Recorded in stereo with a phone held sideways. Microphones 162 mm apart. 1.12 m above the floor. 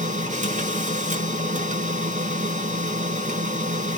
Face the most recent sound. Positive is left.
turn(degrees=-50)  # may be behind; listen again after turning